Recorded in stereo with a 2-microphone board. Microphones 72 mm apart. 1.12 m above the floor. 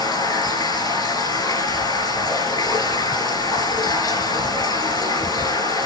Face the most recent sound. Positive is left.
turn(degrees=75)  # may be behind; listen again after turning